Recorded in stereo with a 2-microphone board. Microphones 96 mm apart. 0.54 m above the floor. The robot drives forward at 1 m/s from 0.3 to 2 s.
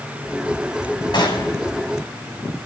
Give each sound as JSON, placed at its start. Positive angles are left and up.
{"t": 1.1, "sound": "a gunshot", "side_deg": 50, "distance_m": 3.0}